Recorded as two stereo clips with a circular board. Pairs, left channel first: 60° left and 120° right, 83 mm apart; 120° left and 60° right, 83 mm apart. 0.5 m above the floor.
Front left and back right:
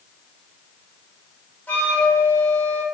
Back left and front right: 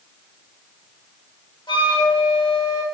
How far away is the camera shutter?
I don't hear a camera shutter.